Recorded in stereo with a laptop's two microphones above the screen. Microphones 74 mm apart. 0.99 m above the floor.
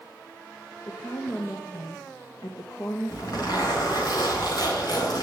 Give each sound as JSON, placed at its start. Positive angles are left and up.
{"t": 0.9, "sound": "a woman speaking", "side_deg": 50, "distance_m": 1.2}
{"t": 3.1, "sound": "a zipper", "side_deg": 70, "distance_m": 4.5}